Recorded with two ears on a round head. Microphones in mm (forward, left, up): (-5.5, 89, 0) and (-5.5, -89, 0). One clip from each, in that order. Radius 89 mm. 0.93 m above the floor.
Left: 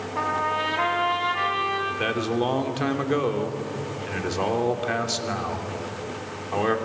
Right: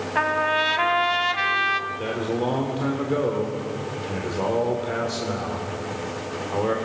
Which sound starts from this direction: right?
A trumpet, at 0.1 s.